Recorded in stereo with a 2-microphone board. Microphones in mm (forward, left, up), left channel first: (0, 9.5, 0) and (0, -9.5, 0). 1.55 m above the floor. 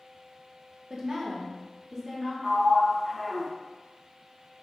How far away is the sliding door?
About 2 m.